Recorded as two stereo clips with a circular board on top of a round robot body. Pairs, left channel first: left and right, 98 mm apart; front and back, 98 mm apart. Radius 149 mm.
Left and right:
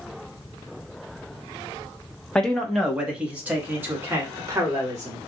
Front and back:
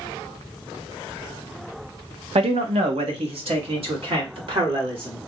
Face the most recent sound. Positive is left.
turn(degrees=-150)